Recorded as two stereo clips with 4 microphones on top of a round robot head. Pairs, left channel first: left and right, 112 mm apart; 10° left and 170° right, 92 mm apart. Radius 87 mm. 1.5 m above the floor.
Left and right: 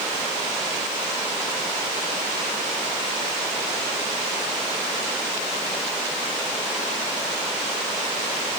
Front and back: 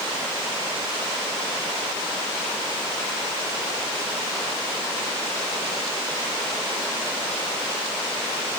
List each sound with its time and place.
Only background noise.